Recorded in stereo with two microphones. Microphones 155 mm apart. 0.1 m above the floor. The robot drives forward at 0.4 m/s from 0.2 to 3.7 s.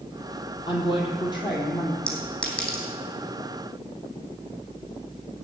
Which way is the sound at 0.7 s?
30° left (ahead or behind).